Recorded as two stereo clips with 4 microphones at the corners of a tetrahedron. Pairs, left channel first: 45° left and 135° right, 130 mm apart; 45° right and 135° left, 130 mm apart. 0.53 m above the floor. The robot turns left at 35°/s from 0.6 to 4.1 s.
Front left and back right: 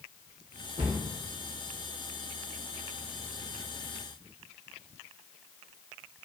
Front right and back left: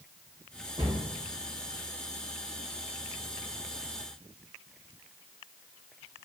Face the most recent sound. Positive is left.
turn(degrees=75)